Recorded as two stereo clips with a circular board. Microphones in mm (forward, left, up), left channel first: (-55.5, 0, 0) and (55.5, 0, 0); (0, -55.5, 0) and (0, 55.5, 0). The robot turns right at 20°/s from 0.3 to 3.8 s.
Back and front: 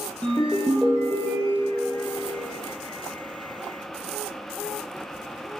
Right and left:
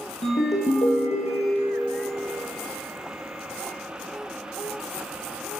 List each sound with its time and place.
0.2 s a ringtone: 100° right, 1.5 m; by 2.0 s 70° right, 1.5 m